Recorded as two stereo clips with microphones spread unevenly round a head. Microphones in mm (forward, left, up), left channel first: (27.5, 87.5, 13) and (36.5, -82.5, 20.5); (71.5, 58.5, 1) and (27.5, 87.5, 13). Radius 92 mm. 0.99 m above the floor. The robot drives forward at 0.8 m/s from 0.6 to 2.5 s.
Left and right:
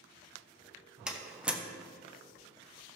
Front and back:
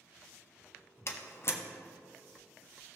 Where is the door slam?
Straight ahead, 1.4 m; by 1.6 s 5° right, 1.0 m.